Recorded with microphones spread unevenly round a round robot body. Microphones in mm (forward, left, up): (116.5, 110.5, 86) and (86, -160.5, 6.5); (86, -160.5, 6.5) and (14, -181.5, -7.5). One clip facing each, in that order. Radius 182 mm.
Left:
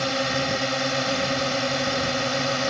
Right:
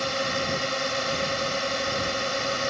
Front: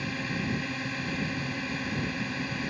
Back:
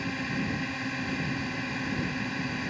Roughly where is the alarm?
No alarm in this recording.